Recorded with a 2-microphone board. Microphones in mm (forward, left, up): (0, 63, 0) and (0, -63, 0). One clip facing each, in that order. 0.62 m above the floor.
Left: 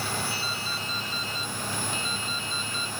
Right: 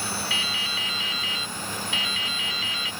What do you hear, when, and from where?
0.3 s dripping: 75° right (ahead or behind)